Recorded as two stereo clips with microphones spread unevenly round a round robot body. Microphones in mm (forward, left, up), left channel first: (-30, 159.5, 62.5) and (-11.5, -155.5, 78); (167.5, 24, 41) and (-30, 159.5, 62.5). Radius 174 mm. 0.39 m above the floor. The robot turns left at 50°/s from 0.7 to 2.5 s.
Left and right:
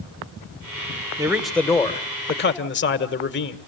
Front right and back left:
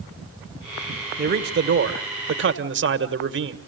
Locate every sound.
1.2 s a man speaking: 165° right, 1.3 m; by 3.6 s 130° left, 1.3 m